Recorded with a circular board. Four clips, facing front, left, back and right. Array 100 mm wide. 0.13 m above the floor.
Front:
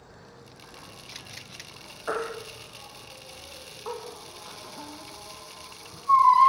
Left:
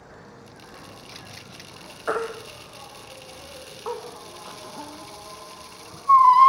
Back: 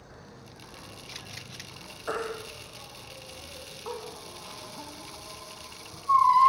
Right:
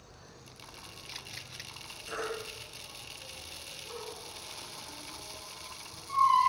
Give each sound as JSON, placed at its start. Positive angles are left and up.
{"t": 0.0, "sound": "an insect", "azimuth_deg": 95, "distance_m": 5.0}
{"t": 2.1, "sound": "a baby crying", "azimuth_deg": 85, "distance_m": 3.5}